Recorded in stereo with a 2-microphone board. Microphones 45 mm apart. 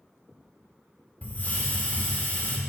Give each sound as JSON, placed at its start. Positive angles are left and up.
{"t": 1.2, "sound": "a hiss", "side_deg": 35, "distance_m": 1.4}